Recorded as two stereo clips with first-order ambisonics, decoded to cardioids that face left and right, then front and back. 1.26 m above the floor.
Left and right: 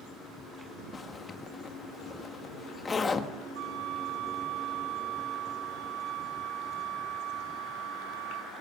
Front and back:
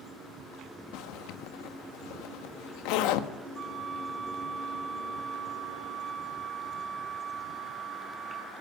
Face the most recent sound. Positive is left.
turn(degrees=-100)